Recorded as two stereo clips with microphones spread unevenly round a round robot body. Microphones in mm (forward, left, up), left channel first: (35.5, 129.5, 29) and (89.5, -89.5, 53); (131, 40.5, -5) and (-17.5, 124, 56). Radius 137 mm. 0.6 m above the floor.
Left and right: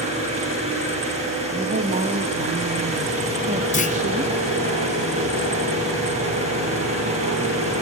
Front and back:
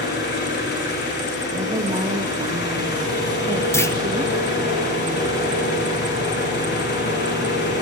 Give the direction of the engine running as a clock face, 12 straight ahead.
12 o'clock.